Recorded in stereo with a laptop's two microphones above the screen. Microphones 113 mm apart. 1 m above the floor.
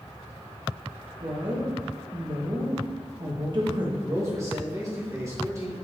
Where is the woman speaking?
45° right (ahead or behind), 1.0 m.